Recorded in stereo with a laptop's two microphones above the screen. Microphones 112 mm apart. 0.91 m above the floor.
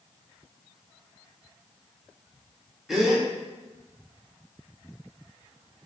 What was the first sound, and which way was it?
A gasp, 5° right (ahead or behind).